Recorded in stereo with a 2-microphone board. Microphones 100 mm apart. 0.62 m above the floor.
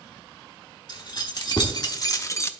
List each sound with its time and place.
0.9 s keys jangling: 50° left (ahead or behind), 1.3 m; by 2.5 s 25° left (ahead or behind), 0.5 m